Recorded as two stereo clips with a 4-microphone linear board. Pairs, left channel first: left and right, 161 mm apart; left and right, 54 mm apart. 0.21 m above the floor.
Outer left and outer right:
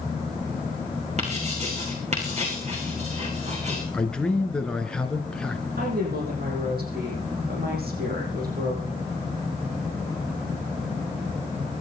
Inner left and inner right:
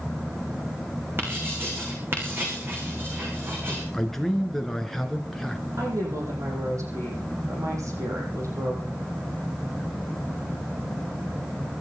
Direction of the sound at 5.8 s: 75° right (ahead or behind).